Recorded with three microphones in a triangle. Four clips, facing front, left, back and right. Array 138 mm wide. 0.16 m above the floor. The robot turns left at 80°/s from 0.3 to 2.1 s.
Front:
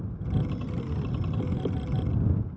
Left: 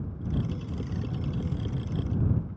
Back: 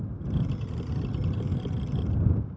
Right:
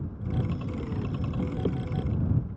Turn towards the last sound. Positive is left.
No sound to turn to.